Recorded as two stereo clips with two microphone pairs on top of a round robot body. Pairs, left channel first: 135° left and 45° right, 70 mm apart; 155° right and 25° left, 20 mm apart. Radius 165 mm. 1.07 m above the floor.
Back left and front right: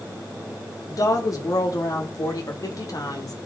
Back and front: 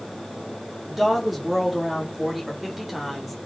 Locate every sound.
0.9 s a woman speaking: 100° left, 4 m